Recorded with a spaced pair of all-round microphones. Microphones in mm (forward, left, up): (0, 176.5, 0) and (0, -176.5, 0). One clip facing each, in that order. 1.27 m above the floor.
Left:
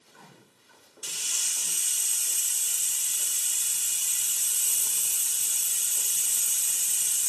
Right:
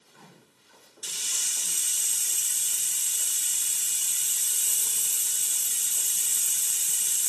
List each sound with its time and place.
1.0 s a hiss: 30° right (ahead or behind), 0.9 m